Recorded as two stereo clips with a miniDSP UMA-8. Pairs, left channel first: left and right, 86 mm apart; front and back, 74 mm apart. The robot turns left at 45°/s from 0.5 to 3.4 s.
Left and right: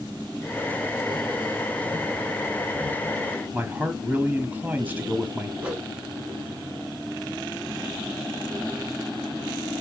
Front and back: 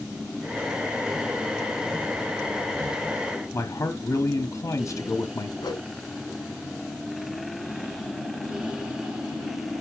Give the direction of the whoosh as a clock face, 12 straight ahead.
12 o'clock.